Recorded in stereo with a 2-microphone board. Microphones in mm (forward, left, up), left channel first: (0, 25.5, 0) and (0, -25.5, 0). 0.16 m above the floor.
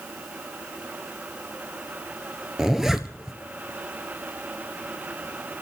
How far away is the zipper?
About 1.0 m.